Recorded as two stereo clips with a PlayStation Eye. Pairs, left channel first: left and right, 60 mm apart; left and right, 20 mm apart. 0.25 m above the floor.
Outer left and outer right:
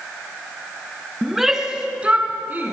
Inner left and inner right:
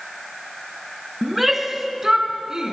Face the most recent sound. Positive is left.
turn(degrees=-35)  # may be behind; listen again after turning